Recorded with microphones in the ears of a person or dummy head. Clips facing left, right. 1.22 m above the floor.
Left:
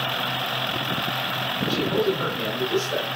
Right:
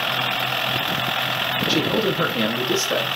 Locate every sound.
1.7 s a man speaking: 85° right, 1.6 m